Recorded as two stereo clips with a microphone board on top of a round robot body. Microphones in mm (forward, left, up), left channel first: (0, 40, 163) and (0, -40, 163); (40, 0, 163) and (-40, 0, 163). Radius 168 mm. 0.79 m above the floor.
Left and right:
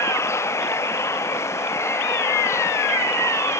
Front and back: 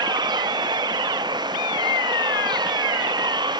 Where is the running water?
150° left.